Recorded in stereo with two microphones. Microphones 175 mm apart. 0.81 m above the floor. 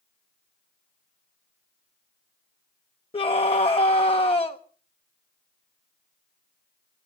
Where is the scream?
30° left (ahead or behind), 0.8 m.